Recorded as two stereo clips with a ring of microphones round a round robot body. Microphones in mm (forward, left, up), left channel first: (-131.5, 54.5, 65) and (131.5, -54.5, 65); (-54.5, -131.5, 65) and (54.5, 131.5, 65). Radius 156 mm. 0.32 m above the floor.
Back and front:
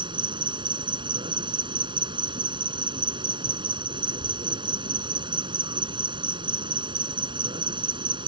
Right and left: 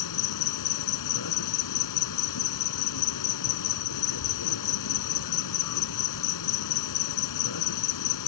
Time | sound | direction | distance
0.0 | an insect | 95° right | ?